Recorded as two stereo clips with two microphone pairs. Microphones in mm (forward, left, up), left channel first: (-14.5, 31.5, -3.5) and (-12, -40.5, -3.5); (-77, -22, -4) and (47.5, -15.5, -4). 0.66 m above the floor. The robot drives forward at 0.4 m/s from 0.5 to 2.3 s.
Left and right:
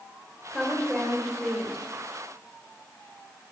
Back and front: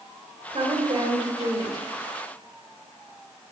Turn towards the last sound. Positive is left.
turn(degrees=30)